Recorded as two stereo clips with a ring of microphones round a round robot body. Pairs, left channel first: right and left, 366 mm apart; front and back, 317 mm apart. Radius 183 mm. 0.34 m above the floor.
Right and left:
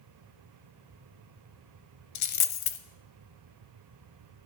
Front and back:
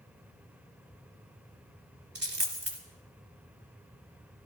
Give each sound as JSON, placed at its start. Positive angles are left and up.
{"t": 2.1, "sound": "a dropped coin", "azimuth_deg": -120, "distance_m": 0.7}